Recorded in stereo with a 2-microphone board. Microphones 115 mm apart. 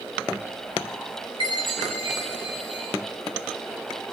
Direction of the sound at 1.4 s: 50° left (ahead or behind).